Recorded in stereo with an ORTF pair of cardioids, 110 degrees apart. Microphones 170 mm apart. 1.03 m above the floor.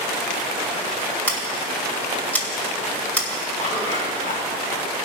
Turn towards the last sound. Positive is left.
turn(degrees=45)